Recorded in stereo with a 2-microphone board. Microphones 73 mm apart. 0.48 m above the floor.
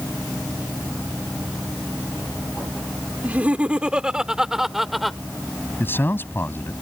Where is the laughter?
20° right (ahead or behind); by 5.2 s centre (ahead or behind).